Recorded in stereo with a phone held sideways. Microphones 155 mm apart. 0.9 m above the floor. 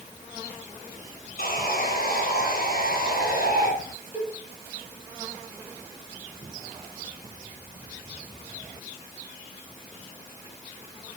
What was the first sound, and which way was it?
Sawing, 75° left (ahead or behind).